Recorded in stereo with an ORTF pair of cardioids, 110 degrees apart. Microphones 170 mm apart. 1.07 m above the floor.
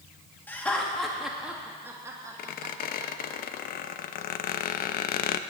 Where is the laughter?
10° left, 2.5 m; by 3.3 s 35° right, 2.5 m.